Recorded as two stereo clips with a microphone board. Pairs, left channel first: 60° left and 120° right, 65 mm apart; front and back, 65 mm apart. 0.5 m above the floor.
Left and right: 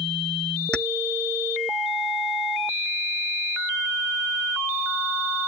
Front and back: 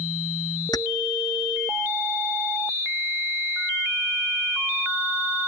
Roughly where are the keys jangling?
Ahead.